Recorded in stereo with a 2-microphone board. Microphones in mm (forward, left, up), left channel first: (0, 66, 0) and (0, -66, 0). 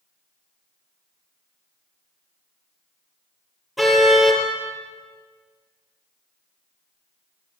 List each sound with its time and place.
3.8 s a car horn: centre (ahead or behind), 4.5 m